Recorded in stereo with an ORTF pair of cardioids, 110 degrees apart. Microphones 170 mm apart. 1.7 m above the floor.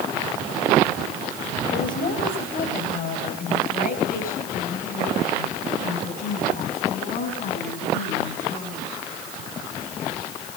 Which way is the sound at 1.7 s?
55° left.